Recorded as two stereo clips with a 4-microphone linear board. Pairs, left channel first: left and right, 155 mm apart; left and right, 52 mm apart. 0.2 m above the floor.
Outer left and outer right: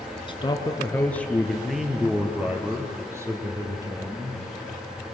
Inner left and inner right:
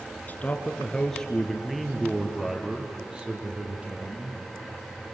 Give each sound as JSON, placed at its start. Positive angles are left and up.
{"t": 0.3, "sound": "a man speaking", "side_deg": 35, "distance_m": 2.0}